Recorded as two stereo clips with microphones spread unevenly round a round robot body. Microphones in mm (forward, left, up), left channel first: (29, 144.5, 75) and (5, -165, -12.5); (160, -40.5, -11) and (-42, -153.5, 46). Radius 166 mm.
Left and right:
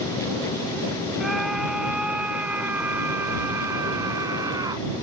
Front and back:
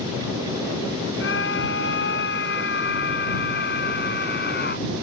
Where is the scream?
5° right; by 4.9 s 15° right.